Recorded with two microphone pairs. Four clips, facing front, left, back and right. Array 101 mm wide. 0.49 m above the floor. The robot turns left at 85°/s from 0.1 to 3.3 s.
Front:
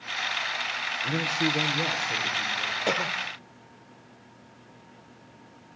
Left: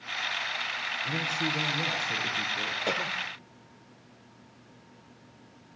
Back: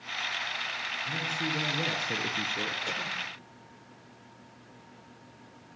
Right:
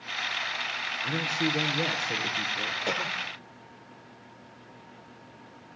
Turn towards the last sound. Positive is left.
turn(degrees=-25)